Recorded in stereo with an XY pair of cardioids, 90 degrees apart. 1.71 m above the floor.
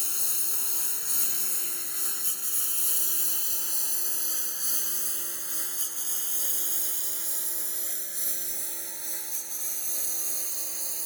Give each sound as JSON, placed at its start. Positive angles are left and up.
{"t": 0.0, "sound": "a lawn mower", "azimuth_deg": 30}